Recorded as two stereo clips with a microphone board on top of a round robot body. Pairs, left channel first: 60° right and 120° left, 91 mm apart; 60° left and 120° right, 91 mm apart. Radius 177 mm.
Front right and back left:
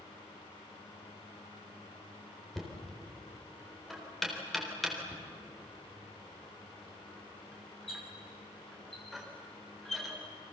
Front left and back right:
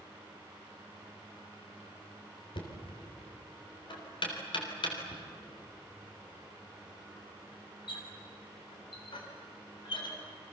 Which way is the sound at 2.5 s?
30° left.